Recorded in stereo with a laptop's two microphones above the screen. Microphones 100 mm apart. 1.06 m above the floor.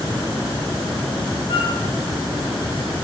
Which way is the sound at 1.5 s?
75° left (ahead or behind).